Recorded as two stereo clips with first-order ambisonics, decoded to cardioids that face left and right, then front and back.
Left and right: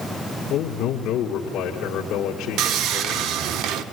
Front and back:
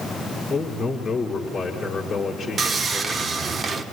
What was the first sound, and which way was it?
A man speaking, 75° left.